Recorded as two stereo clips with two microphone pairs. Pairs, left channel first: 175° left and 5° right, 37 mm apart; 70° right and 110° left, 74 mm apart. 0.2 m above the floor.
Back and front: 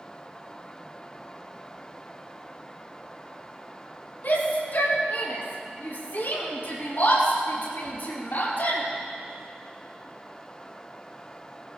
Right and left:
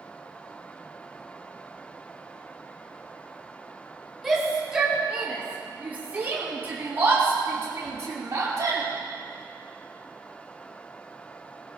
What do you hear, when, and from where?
4.2 s a shout: 165° right, 5.5 m; by 8.8 s 155° left, 7 m